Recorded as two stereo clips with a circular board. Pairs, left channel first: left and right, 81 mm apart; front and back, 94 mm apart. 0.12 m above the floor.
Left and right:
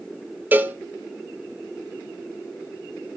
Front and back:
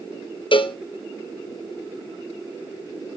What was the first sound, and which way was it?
A cowbell, 20° right.